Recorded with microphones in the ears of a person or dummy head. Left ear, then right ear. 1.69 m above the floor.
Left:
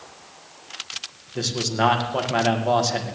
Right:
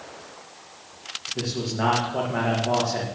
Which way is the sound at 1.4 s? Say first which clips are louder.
Left 7 dB; 80° left.